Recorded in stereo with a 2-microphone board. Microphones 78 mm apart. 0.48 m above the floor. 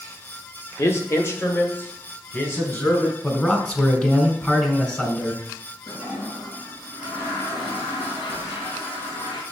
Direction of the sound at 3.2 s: 15° left (ahead or behind).